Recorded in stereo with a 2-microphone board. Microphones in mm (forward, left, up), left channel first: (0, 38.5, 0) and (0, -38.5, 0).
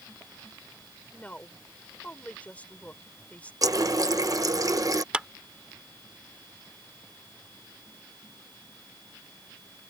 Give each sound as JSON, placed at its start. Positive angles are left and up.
{"t": 1.1, "sound": "a woman speaking", "side_deg": 15}
{"t": 3.6, "sound": "a running tap", "side_deg": -45}
{"t": 5.1, "sound": "a clap", "side_deg": -15}